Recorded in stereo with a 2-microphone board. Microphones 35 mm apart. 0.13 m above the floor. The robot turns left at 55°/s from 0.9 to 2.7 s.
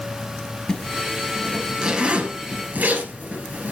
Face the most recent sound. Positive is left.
turn(degrees=-55)  # may be behind; listen again after turning